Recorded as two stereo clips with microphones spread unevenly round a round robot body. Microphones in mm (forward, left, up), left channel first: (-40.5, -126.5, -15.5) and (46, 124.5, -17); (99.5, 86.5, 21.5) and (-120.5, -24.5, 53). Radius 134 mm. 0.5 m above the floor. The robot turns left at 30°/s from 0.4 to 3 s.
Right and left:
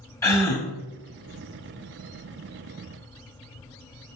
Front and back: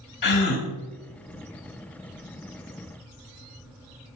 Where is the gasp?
30° right, 0.7 m; by 0.7 s 40° right, 0.7 m.